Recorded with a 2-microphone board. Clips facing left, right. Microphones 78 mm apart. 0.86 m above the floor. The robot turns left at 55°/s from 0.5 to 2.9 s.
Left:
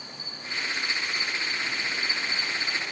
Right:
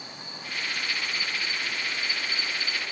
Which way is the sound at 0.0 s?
115° right.